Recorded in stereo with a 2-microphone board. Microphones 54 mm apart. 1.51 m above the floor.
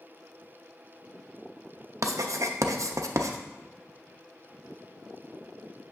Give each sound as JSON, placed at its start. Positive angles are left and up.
{"t": 2.0, "sound": "writing", "side_deg": -85, "distance_m": 0.5}